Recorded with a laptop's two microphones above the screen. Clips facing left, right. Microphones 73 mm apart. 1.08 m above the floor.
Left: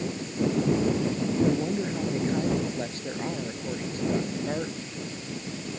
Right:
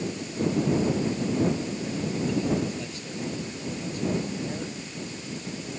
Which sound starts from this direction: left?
A woman speaking, at 1.4 s.